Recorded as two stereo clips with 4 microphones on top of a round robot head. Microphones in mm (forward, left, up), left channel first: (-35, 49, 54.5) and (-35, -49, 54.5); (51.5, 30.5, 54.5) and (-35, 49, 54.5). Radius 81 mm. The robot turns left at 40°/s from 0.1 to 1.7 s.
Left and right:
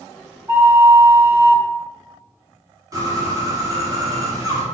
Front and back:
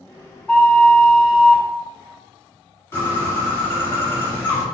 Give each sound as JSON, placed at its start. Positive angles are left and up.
{"t": 0.5, "sound": "a flute", "azimuth_deg": -75, "distance_m": 0.5}
{"t": 2.9, "sound": "a bird", "azimuth_deg": -60, "distance_m": 1.3}